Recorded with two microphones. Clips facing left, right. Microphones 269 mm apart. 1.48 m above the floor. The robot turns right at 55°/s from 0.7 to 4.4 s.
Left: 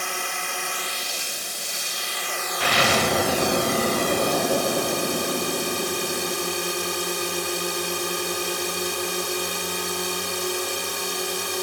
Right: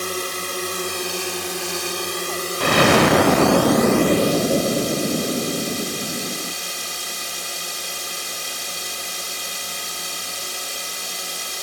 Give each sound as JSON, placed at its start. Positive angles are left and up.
{"t": 0.0, "sound": "a drone", "azimuth_deg": -135}
{"t": 2.6, "sound": "an explosion", "azimuth_deg": -130}